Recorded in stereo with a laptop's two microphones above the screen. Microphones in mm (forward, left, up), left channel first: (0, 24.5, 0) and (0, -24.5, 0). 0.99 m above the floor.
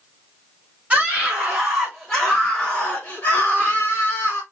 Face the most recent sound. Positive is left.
turn(degrees=65)  # may be behind; listen again after turning